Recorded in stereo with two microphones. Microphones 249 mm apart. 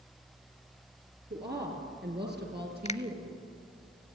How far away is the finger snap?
About 0.7 m.